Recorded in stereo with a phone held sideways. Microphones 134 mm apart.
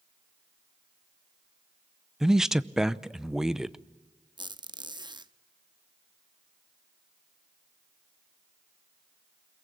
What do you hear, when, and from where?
2.2 s a man speaking: 5° right (ahead or behind), 0.6 m
4.4 s a squeak: 35° right (ahead or behind), 0.7 m